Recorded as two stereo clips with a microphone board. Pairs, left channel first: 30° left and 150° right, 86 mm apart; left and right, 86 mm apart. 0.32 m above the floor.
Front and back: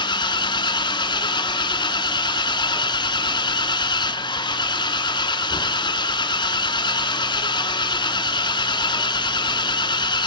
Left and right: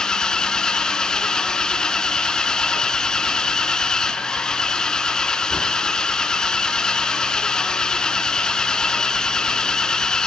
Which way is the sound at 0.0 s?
10° left.